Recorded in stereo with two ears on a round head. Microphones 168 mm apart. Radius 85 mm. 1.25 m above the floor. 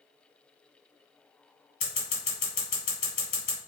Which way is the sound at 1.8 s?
45° left (ahead or behind).